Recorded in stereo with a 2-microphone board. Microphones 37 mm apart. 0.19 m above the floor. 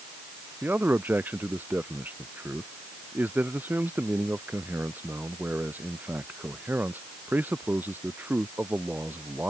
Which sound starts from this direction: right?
A man speaking, at 0.6 s.